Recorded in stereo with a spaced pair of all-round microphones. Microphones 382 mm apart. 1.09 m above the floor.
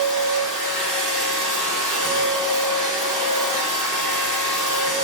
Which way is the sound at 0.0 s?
50° right (ahead or behind).